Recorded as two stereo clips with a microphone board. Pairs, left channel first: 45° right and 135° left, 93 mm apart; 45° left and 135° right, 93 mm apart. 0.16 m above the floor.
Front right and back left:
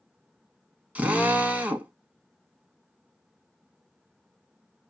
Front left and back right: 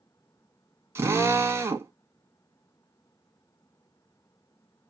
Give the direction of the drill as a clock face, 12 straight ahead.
5 o'clock.